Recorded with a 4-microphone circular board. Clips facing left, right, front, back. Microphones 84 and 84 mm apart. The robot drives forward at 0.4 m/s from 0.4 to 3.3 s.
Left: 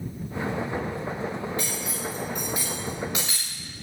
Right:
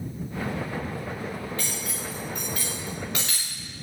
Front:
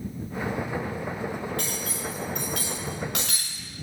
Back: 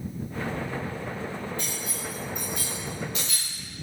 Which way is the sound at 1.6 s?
10° left.